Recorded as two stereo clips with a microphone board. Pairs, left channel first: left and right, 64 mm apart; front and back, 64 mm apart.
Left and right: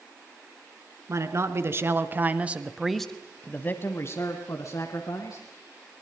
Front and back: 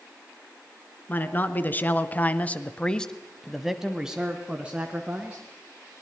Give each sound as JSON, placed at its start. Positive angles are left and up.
{"t": 1.1, "sound": "a man speaking", "azimuth_deg": -60, "distance_m": 2.0}